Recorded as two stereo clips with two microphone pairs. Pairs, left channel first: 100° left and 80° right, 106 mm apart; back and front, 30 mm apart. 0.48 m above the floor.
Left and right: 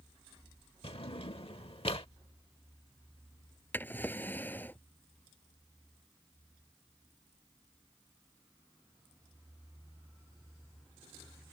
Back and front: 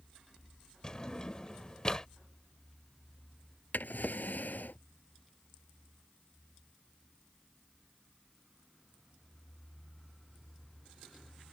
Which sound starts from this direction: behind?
A drawer, at 3.7 s.